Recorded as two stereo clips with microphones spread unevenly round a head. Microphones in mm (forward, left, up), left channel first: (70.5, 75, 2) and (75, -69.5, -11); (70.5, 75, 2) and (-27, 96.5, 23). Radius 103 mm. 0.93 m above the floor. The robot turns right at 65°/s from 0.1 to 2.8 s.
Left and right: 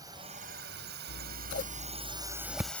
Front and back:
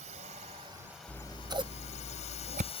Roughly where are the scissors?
Left.